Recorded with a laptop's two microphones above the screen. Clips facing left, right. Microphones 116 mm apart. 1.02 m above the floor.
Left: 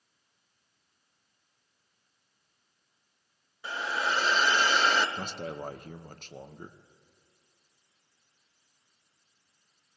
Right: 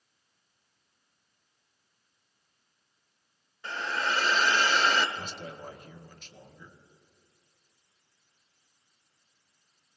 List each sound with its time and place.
3.6 s a hiss: 10° left (ahead or behind), 1.0 m
5.2 s a man speaking: 50° left (ahead or behind), 0.5 m